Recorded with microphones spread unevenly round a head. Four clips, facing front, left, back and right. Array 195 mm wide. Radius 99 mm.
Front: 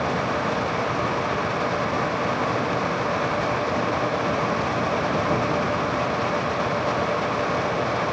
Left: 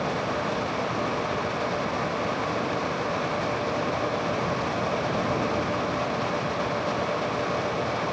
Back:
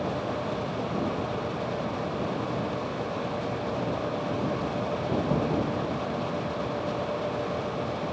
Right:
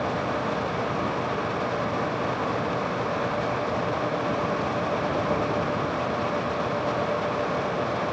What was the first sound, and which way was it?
Only background noise.